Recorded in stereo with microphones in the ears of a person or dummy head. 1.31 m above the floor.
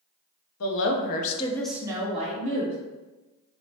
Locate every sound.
0.6 s a woman speaking: 70° left (ahead or behind), 0.8 m; by 2.8 s 45° right (ahead or behind), 1.1 m